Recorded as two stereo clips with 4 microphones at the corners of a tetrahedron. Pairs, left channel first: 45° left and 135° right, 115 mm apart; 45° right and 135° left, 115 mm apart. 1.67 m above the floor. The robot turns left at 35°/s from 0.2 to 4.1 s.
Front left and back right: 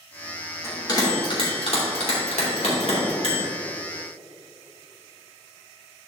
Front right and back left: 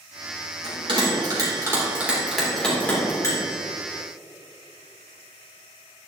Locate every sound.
0.6 s a bell: 105° left, 3 m; by 3.4 s 10° left, 3 m